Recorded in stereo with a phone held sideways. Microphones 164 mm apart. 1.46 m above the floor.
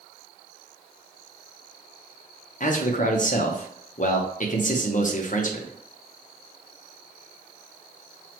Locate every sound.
2.6 s a man speaking: 50° left (ahead or behind), 0.7 m